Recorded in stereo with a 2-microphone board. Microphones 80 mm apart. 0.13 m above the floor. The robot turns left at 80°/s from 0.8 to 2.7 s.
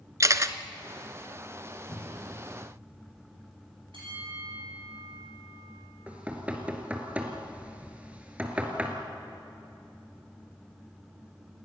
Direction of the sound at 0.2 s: 40° right (ahead or behind).